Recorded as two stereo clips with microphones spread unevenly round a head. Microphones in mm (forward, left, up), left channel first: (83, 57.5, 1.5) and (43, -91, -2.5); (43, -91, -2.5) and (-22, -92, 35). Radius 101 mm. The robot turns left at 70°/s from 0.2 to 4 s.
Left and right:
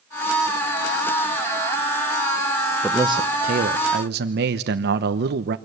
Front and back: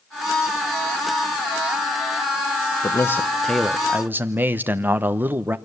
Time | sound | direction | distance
2.8 | a man speaking | 25° right | 1.0 m